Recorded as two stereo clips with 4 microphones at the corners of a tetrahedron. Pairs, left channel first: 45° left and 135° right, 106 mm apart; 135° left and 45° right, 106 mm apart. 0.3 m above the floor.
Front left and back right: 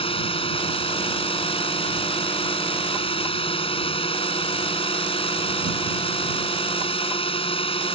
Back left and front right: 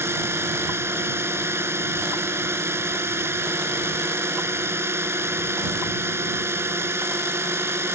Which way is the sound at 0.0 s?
20° left.